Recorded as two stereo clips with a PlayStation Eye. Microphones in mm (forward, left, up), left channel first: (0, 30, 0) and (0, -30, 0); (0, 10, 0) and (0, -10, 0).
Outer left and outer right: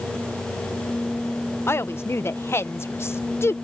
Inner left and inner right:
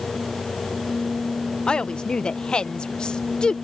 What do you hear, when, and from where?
1.7 s a woman speaking: 45° left (ahead or behind)